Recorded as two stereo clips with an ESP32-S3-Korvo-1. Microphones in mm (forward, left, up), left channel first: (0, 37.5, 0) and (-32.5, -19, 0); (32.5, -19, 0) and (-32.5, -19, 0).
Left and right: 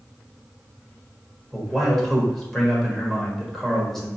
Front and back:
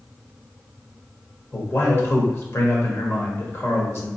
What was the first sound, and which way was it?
A man speaking, 25° right.